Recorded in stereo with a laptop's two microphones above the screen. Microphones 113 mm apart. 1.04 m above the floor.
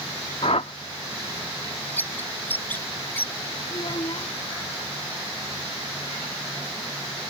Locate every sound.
0.4 s a whoosh: 70° left (ahead or behind)
2.0 s a bird: 15° left (ahead or behind)
3.7 s a child speaking: 55° left (ahead or behind)